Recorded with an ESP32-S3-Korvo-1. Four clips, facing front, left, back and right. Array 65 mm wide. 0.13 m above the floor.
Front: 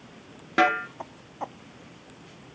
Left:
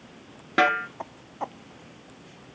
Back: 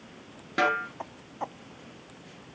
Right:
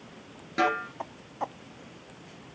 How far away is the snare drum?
About 1.4 m.